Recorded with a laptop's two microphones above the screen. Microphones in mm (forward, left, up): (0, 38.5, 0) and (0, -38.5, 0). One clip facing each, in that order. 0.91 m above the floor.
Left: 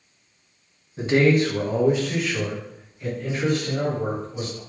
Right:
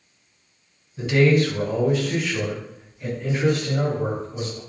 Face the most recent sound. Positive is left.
turn(degrees=-15)  # may be behind; listen again after turning